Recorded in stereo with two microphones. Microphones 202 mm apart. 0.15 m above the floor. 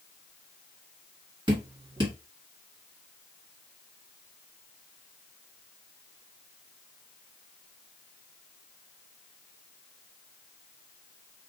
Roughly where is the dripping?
Right.